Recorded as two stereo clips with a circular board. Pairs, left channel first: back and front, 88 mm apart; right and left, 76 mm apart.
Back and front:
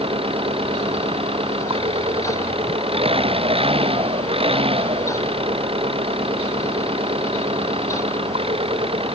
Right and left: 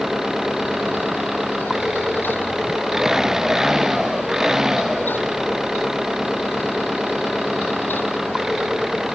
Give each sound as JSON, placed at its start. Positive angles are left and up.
{"t": 0.0, "sound": "an engine running", "azimuth_deg": 5}